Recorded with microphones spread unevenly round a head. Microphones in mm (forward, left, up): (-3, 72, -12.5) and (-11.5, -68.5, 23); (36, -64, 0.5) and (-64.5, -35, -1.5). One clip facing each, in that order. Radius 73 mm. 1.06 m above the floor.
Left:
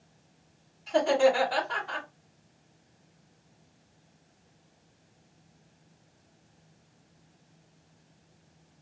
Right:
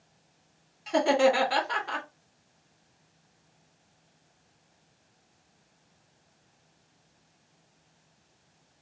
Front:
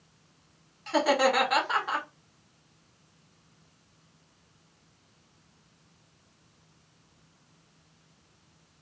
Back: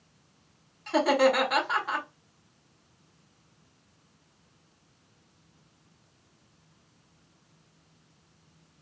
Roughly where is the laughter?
Right.